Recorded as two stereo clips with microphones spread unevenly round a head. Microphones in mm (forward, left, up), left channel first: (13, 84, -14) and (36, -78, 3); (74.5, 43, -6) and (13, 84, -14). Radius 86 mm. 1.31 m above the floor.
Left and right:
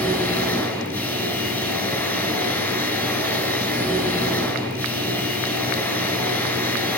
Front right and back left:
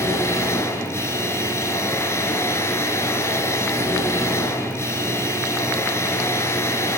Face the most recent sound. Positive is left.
turn(degrees=15)